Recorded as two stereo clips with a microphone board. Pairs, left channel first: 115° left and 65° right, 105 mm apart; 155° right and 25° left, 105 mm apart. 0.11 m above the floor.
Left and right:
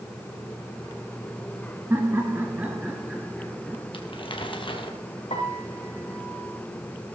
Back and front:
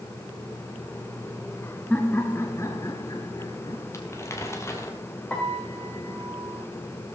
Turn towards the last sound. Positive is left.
turn(degrees=120)